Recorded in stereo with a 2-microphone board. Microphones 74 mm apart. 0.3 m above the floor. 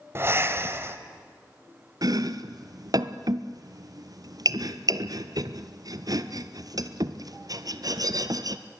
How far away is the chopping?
About 1.0 m.